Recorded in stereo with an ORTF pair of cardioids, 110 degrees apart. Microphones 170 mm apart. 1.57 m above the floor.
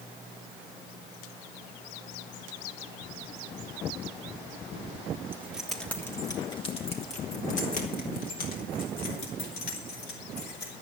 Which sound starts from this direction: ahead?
Keys jangling, at 5.3 s.